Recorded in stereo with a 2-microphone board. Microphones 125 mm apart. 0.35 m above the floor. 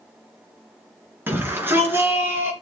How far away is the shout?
About 4 m.